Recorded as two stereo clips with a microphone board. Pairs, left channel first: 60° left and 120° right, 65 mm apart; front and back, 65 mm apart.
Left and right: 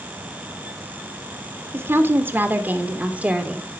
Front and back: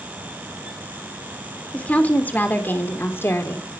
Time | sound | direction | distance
1.7 | a woman speaking | 70° right | 3 m